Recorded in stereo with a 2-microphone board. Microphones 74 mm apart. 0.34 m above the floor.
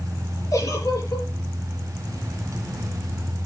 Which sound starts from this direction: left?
A giggle, at 0.5 s.